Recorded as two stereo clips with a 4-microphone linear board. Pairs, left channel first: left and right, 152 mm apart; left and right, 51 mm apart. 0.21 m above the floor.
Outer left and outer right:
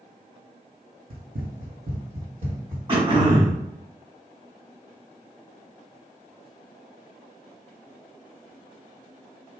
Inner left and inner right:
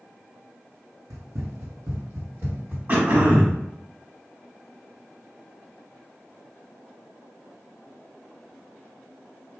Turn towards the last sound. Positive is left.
turn(degrees=-35)  # may be behind; listen again after turning